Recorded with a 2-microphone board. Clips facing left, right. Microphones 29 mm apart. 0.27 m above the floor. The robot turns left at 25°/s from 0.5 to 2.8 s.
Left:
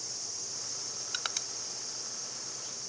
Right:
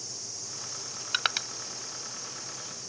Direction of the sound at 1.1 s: 40° right (ahead or behind).